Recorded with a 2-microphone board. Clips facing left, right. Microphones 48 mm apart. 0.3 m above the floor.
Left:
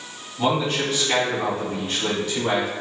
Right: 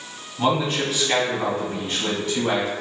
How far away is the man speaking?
About 1.7 m.